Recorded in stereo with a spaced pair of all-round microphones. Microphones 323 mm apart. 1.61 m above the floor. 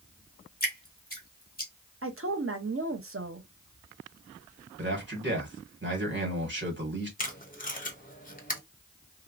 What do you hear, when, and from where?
0.6 s dripping: 25° left (ahead or behind), 1.6 m
2.0 s a woman speaking: 40° right (ahead or behind), 0.8 m
4.8 s a man speaking: 35° right (ahead or behind), 1.8 m
7.2 s tape being pulled: 25° left (ahead or behind), 0.7 m